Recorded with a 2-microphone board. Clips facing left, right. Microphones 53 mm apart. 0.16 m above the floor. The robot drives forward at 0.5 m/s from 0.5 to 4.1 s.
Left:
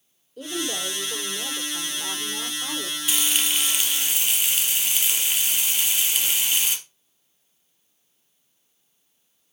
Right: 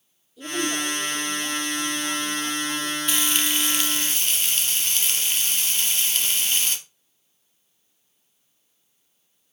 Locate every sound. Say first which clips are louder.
0.4 s a woman speaking: right 3 dB; 55° left (ahead or behind), 6 m; by 3.0 s 65° left (ahead or behind), 5.5 m
3.1 s frying: left 1 dB; 5° left (ahead or behind), 2.5 m